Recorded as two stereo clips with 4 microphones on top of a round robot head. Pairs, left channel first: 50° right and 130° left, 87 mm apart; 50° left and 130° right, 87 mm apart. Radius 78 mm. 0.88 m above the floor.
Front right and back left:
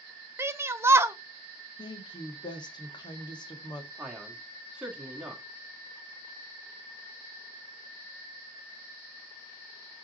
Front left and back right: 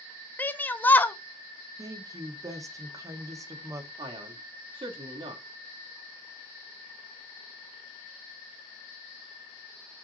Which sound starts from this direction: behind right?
A man speaking, at 4.0 s.